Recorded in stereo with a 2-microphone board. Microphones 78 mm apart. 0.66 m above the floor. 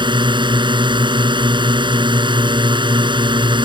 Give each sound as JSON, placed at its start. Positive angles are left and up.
{"t": 0.0, "sound": "a drone", "side_deg": -70}